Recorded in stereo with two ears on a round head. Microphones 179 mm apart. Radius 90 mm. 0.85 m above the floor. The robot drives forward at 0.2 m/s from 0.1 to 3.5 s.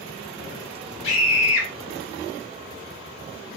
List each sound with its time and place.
1.0 s a scream: 65° left (ahead or behind), 1.9 m